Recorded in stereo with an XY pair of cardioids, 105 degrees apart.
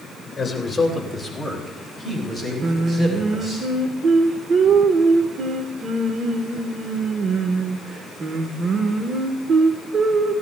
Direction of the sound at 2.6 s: 50° right.